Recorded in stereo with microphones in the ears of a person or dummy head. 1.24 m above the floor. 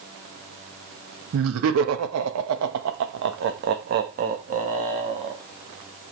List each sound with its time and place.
1.3 s laughter: 70° right (ahead or behind), 1.5 m; by 5.4 s 30° right (ahead or behind), 2 m